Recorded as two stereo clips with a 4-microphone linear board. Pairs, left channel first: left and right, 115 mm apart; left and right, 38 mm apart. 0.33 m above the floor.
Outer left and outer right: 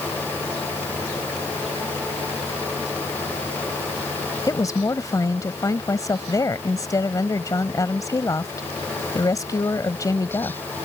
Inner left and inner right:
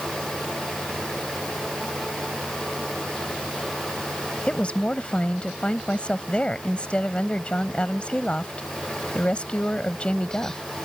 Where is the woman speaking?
30° left (ahead or behind).